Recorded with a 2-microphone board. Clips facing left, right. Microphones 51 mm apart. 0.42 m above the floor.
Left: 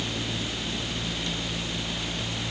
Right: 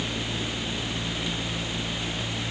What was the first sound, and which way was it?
Only background noise.